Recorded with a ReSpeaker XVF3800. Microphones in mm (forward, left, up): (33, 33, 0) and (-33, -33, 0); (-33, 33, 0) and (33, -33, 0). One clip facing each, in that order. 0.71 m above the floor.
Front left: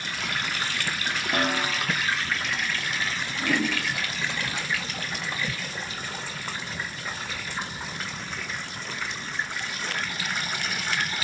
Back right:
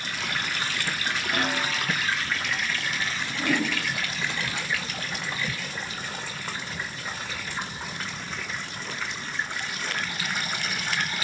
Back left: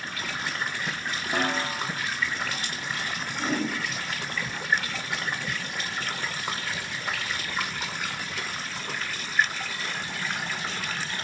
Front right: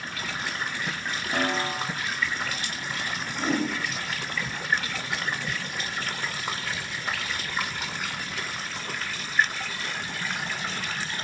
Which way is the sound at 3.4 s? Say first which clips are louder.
Even, front right 2 dB; 55° right.